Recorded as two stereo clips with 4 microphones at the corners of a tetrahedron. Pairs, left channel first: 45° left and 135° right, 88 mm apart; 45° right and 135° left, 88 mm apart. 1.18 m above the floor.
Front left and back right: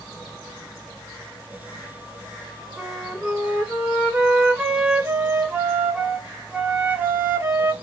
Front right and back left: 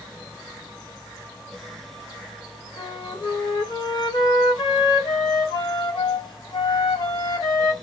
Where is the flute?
65° right, 1.6 m.